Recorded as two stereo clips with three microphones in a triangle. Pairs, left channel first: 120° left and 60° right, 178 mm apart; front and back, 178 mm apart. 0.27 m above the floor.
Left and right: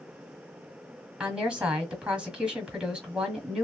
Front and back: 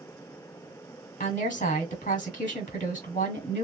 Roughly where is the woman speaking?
Ahead left.